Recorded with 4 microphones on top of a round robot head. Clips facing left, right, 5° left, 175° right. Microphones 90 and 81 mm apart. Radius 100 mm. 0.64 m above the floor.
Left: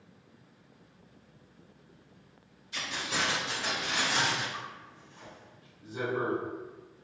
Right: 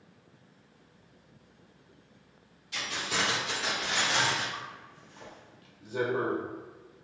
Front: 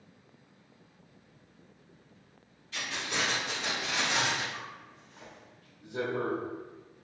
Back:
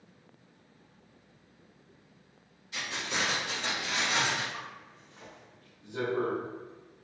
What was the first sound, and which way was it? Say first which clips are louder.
Keys jangling: right 1 dB, even; 100° right.